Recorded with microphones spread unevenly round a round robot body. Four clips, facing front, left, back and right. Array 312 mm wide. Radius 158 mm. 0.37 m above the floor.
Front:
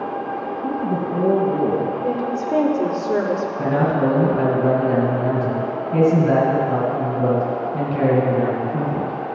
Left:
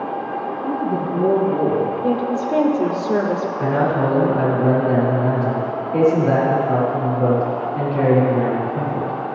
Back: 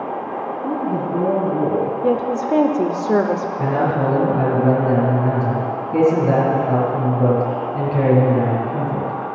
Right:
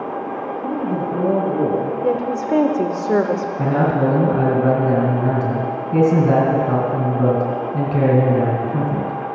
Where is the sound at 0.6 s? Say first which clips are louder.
Even, back 1 dB; 25° right, 3 m.